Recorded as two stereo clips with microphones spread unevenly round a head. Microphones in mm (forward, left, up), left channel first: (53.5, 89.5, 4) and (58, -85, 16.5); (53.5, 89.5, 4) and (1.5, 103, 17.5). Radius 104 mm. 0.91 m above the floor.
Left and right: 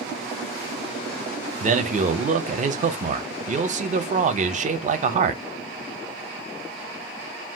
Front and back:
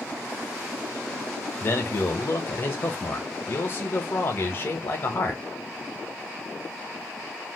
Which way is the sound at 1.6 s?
45° right.